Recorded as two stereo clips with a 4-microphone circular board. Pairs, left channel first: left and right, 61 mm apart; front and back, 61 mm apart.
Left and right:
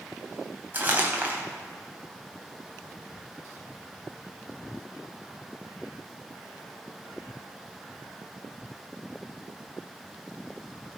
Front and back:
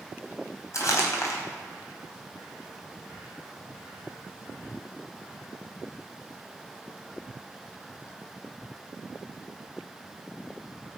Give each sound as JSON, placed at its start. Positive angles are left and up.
{"t": 0.7, "sound": "crumpling", "azimuth_deg": -30, "distance_m": 3.0}